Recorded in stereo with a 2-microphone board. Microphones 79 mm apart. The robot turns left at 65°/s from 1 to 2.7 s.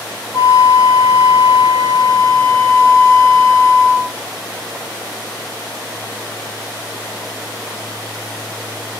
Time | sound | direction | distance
0.3 | a flute | 130° left | 1.7 m